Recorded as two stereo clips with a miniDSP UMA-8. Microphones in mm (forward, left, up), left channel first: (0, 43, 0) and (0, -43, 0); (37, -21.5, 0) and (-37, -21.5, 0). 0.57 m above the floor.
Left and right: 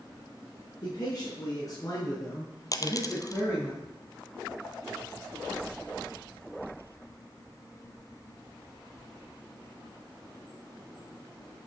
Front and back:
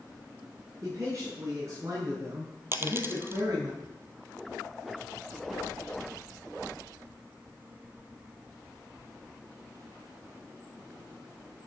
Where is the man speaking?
130° left, 7.5 m; by 3.7 s 155° left, 4 m.